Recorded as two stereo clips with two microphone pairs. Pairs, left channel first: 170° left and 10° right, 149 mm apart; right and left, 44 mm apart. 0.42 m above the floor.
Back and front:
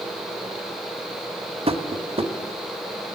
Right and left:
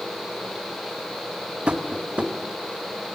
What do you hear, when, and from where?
1.7 s tapping: 30° left, 1.1 m